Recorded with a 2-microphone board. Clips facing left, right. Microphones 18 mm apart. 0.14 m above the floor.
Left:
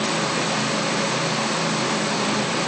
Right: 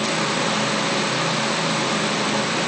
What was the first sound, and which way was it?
Only background noise.